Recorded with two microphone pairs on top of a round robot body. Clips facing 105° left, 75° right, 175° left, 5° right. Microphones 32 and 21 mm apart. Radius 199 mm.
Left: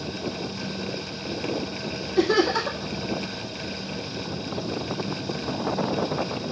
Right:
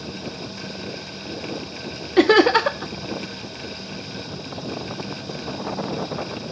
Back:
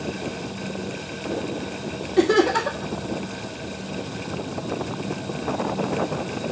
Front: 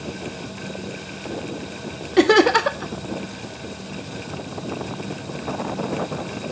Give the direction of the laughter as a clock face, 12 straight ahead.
2 o'clock.